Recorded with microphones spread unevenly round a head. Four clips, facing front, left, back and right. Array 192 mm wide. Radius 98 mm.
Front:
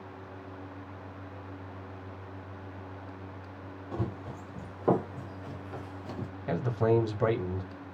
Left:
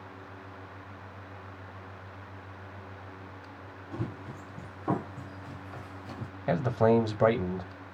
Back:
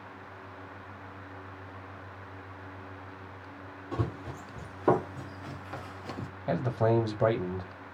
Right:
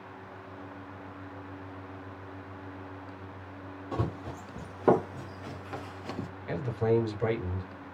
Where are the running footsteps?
120° right, 3 m; by 6.3 s 135° right, 2.0 m.